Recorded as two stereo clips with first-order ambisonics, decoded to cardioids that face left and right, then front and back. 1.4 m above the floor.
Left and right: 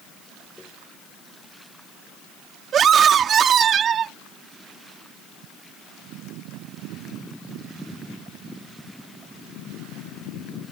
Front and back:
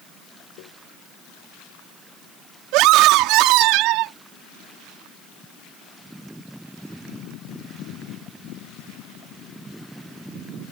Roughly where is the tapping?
Ahead.